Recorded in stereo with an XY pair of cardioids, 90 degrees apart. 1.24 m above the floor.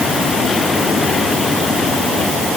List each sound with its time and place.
Only background noise.